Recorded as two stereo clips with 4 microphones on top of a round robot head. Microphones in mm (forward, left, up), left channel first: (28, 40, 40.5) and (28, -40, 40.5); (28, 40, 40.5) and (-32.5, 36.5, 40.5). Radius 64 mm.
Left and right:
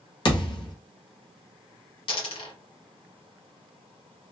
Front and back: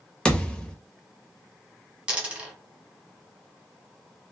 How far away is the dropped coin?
About 1.2 m.